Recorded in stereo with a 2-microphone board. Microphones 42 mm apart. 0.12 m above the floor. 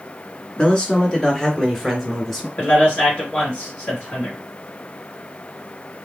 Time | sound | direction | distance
0.6 | a man speaking | 20° left (ahead or behind) | 1.2 m
2.6 | a man speaking | 40° left (ahead or behind) | 2 m